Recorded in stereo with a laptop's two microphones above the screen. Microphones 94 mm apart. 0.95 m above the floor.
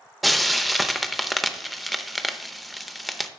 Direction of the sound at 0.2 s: Centre (ahead or behind).